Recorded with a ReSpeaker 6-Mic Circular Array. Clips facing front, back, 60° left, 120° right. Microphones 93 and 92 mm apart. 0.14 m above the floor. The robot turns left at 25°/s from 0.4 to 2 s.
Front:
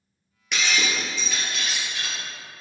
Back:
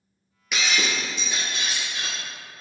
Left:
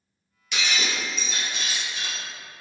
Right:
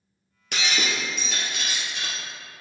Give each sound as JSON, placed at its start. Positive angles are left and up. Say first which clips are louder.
{"t": 0.5, "sound": "breaking glass", "louder": "even, right 1 dB", "azimuth_deg": -95, "distance_m": 1.8}